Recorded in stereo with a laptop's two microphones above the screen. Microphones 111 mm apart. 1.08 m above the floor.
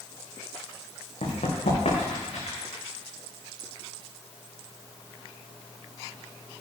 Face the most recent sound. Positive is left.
turn(degrees=70)  # may be behind; listen again after turning